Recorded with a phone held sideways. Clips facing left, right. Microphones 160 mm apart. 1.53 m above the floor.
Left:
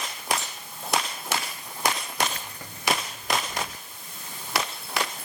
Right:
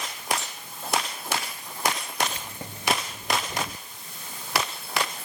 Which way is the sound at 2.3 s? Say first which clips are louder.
Right 1 dB; 20° right (ahead or behind).